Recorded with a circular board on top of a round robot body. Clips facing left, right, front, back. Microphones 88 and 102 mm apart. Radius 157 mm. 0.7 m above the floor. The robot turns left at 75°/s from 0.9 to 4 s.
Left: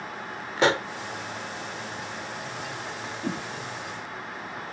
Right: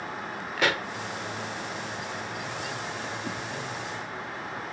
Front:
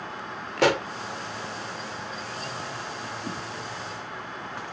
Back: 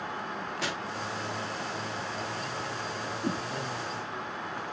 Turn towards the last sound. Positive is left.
turn(degrees=75)